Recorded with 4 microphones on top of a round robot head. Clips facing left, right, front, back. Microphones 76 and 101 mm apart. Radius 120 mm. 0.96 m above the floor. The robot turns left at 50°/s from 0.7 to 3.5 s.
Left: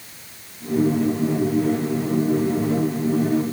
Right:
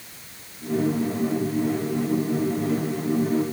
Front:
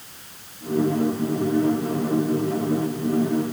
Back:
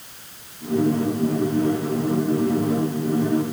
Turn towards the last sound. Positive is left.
No sound to turn to.